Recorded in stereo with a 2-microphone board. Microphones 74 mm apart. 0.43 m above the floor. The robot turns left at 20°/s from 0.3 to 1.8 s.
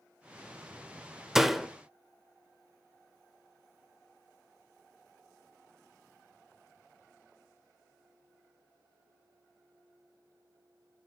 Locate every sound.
1.4 s a door slam: 5° right (ahead or behind), 0.8 m; by 1.7 s centre (ahead or behind), 0.8 m